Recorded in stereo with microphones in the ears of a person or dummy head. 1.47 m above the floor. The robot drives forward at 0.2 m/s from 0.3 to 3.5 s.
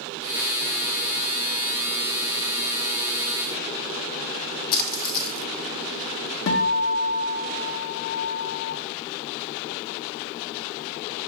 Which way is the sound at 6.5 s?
60° left (ahead or behind).